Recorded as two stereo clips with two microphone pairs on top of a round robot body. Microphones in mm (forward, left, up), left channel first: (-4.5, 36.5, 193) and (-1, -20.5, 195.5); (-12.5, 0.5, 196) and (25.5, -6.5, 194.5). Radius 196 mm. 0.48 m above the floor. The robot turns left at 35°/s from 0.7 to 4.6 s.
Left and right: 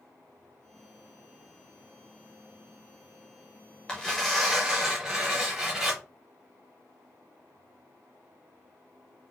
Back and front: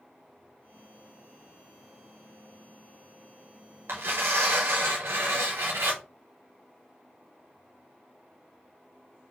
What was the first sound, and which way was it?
Tearing paper, 15° left.